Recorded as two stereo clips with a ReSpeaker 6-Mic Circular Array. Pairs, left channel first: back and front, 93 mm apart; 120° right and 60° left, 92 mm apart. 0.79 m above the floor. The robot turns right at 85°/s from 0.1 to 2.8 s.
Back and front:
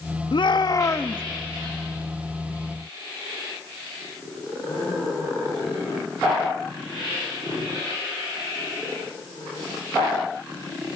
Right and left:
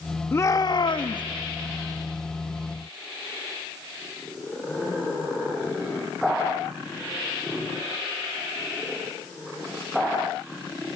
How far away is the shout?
About 0.9 m.